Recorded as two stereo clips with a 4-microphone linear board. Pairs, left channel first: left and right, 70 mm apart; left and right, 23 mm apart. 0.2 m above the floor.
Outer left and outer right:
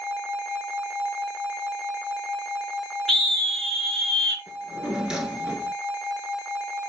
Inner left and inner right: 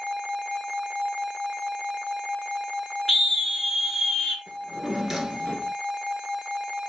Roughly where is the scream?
Centre.